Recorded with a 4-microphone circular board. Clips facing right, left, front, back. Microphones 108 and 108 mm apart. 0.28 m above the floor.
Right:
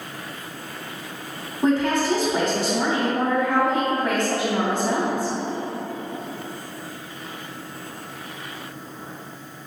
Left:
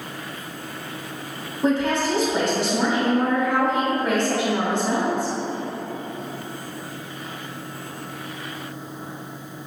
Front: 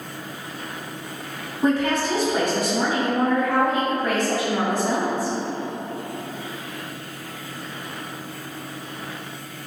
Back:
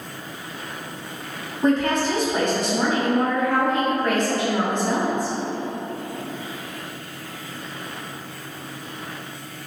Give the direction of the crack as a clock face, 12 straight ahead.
I don't hear a crack.